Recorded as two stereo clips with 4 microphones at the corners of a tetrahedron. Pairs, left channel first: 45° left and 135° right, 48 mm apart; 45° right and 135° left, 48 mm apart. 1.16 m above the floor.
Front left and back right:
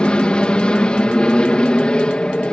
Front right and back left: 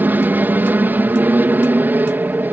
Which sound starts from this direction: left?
An aircraft, at 0.0 s.